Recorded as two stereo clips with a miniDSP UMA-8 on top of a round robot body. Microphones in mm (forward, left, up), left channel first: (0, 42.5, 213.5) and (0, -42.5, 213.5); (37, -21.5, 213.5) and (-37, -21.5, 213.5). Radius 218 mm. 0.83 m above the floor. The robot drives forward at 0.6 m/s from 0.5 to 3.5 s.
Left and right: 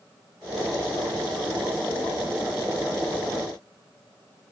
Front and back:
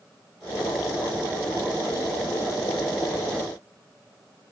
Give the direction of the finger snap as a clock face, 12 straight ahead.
No finger snap in this recording.